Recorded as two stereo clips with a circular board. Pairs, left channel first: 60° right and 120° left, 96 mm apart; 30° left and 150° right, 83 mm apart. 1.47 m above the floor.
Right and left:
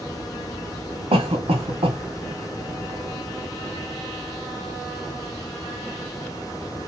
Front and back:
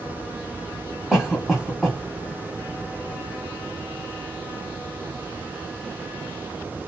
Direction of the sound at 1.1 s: 120° left.